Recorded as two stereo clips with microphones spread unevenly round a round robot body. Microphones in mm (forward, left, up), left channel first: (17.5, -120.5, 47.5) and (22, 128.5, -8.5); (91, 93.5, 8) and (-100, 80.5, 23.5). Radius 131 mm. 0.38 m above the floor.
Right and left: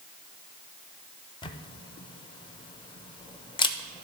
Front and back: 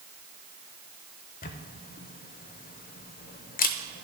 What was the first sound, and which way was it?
A camera shutter, 10° right.